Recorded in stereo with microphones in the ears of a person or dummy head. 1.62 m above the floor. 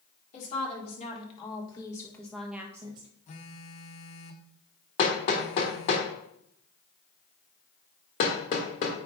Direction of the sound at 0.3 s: 40° left (ahead or behind).